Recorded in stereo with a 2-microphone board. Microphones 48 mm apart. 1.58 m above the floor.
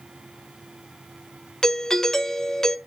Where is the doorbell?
10° left (ahead or behind), 0.7 m.